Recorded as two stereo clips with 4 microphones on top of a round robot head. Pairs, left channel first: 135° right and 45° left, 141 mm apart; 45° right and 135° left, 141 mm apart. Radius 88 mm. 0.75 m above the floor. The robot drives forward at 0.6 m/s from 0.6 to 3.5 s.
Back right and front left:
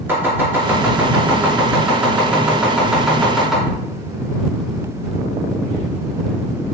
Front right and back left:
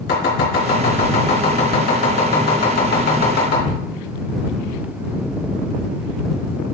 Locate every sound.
0.1 s chopping: 30° right, 5.5 m; by 3.6 s 45° right, 4 m